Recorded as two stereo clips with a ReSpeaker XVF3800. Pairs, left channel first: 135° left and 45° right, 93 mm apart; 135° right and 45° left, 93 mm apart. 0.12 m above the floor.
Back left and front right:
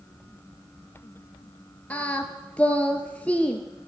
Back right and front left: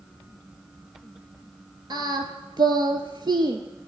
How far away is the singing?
About 0.6 m.